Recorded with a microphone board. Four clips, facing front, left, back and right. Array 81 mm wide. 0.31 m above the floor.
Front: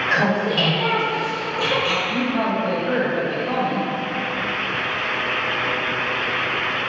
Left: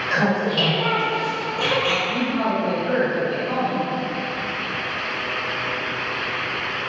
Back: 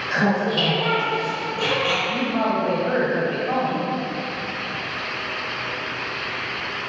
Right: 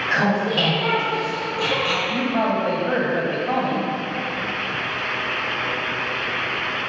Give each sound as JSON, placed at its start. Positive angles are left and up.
{"t": 0.1, "sound": "laughter", "azimuth_deg": -55, "distance_m": 1.6}
{"t": 2.1, "sound": "a woman speaking", "azimuth_deg": -105, "distance_m": 1.5}